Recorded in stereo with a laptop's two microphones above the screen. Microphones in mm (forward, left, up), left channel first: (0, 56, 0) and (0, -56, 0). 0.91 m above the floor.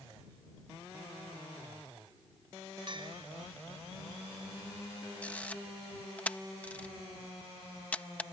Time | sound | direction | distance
2.9 | a bell | 45° right (ahead or behind) | ?
5.2 | a camera shutter | 15° left (ahead or behind) | ?